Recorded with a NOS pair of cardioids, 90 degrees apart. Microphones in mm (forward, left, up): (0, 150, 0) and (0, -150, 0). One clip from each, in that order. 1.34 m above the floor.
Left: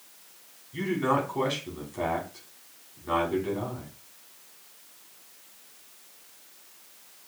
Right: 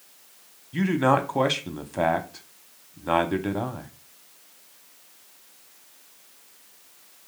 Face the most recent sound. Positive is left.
turn(degrees=-55)